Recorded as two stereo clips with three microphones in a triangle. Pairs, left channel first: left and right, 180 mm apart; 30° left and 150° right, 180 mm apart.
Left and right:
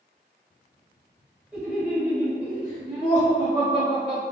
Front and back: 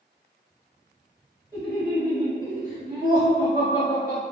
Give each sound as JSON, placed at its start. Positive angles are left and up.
{"t": 1.5, "sound": "laughter", "azimuth_deg": -165, "distance_m": 1.2}